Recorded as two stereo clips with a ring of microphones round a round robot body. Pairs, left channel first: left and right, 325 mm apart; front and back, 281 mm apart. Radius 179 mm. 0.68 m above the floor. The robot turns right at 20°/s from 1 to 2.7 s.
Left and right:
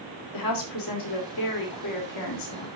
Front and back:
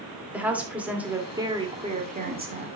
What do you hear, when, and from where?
0.3 s a woman speaking: 95° left, 2.5 m; by 2.7 s 130° left, 2.5 m